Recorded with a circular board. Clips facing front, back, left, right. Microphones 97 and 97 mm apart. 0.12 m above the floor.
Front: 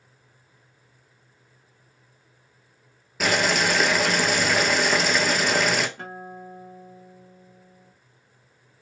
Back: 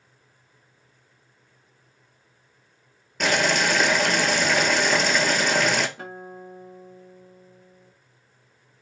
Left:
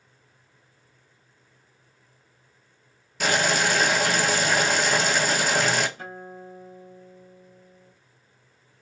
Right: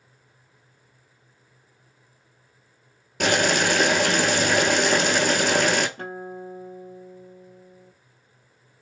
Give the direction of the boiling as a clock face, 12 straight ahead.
3 o'clock.